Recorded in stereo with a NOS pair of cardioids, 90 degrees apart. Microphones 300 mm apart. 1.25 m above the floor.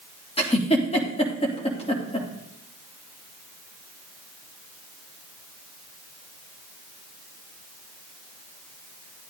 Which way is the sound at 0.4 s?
20° left.